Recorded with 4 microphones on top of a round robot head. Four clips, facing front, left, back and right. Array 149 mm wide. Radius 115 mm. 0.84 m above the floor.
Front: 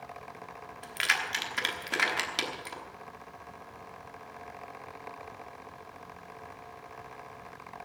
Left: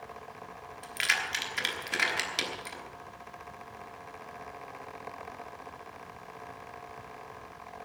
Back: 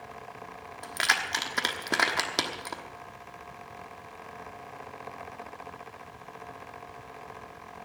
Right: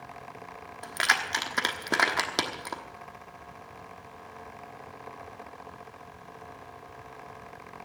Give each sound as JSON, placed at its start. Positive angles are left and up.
{"t": 0.8, "sound": "keys jangling", "azimuth_deg": -130, "distance_m": 1.3}